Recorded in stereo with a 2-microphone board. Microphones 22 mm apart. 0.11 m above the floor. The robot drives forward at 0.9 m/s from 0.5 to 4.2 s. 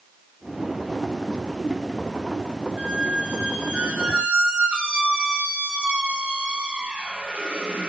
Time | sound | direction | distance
2.8 | a squeak | 65° right (ahead or behind) | 5.5 m